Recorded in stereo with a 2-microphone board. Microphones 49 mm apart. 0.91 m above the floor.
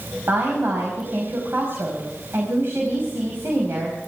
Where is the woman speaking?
50° right (ahead or behind), 5 m.